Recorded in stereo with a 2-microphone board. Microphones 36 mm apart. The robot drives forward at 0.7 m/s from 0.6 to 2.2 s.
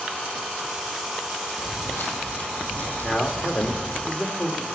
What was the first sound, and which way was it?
Footsteps, 60° left (ahead or behind).